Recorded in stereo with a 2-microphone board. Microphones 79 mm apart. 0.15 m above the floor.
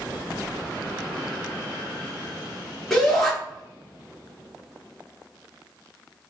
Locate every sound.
2.9 s a shout: 10° left (ahead or behind), 1.8 m